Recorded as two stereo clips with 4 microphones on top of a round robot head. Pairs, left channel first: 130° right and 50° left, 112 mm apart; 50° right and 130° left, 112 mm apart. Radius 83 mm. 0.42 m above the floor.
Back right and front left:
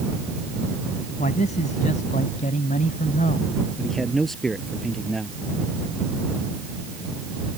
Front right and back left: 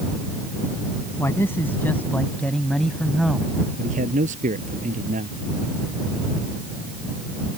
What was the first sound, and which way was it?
A man speaking, 115° right.